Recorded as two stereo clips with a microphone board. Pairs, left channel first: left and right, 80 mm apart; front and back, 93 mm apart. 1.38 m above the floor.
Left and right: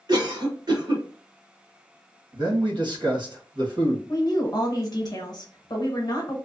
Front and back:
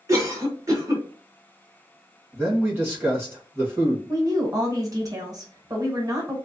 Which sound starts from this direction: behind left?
A woman speaking, at 4.1 s.